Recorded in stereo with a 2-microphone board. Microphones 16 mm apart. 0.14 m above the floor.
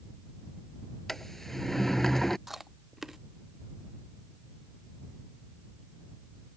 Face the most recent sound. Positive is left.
turn(degrees=-20)  # may be behind; listen again after turning